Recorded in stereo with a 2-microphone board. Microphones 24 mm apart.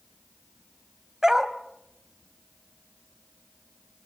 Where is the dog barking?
25° right (ahead or behind), 1.5 m.